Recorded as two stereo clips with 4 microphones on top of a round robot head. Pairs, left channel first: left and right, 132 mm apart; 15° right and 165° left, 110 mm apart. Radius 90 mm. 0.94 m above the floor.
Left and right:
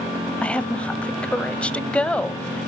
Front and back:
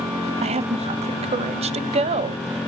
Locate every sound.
0.4 s a woman speaking: 170° left, 0.6 m